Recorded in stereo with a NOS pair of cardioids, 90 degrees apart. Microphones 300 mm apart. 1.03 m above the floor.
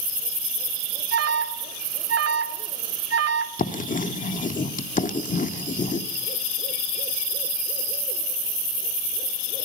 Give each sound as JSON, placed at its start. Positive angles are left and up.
{"t": 1.1, "sound": "an alarm", "azimuth_deg": -55, "distance_m": 3.0}
{"t": 3.6, "sound": "writing", "azimuth_deg": 25, "distance_m": 1.5}